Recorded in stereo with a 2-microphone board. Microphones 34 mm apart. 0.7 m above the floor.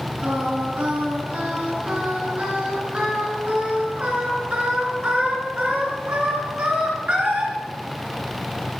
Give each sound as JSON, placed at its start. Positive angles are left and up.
{"t": 0.2, "sound": "singing", "side_deg": -35, "distance_m": 3.5}